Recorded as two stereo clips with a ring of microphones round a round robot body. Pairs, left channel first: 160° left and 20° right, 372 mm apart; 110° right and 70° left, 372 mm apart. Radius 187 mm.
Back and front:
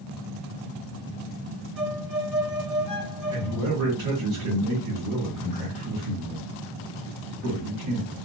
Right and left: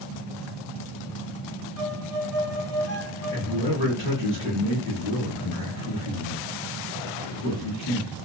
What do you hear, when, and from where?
1.8 s a violin: 25° right, 1.7 m
3.3 s a man speaking: 60° right, 1.5 m